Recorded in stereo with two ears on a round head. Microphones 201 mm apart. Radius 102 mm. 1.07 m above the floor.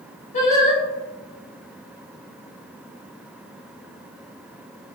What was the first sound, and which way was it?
Singing, 30° left (ahead or behind).